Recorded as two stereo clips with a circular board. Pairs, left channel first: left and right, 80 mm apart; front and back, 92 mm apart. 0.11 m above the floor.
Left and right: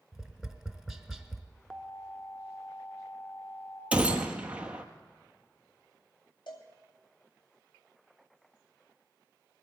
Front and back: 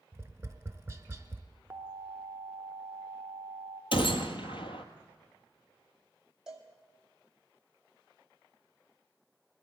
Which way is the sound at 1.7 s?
170° left.